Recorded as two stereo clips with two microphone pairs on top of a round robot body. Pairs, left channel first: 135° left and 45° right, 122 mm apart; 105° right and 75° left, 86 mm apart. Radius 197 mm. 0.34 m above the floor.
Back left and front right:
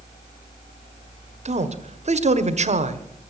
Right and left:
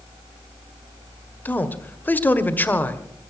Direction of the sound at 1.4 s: 35° right.